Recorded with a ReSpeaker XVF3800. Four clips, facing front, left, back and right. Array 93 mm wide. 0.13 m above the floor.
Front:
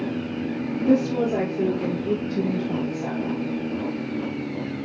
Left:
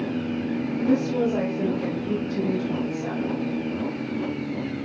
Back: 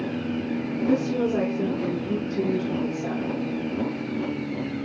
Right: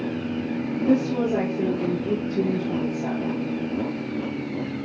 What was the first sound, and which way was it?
A woman speaking, 40° right.